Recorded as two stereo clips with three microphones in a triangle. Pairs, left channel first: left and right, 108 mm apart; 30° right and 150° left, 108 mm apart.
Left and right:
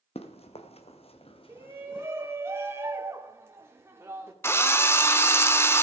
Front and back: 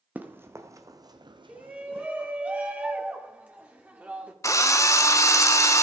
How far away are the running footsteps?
About 1.3 m.